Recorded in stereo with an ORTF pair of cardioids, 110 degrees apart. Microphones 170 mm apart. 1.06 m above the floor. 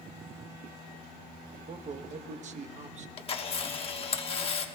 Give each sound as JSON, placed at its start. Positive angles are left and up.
{"t": 1.7, "sound": "a man speaking", "azimuth_deg": -40, "distance_m": 0.9}
{"t": 3.2, "sound": "a camera shutter", "azimuth_deg": 30, "distance_m": 1.2}